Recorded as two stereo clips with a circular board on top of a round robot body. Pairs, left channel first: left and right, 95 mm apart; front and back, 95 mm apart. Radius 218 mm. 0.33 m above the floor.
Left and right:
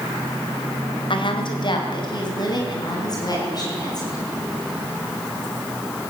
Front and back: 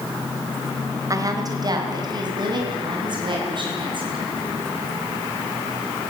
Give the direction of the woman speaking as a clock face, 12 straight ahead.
8 o'clock.